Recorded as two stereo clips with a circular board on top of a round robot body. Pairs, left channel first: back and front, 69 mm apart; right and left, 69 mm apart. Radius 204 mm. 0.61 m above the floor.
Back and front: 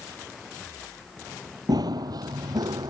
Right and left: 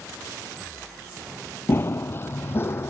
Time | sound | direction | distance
1.7 | running footsteps | 30° right | ?